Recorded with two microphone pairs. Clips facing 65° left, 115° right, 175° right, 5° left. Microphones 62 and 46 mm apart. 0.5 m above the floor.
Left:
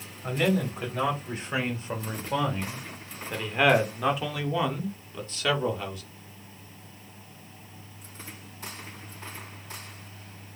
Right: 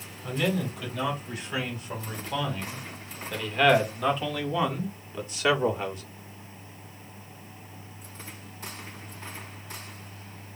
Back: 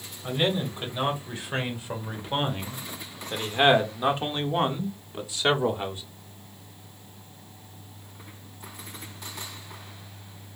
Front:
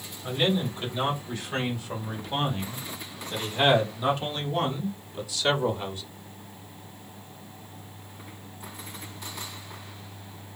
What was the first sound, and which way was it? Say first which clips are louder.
A man speaking: left 2 dB, even; 110° left.